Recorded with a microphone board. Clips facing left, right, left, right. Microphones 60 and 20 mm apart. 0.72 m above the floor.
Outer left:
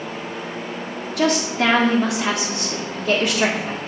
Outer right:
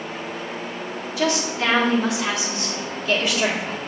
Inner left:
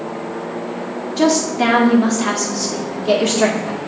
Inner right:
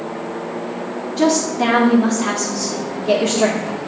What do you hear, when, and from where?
1.2 s a woman speaking: 55° left (ahead or behind), 1.8 m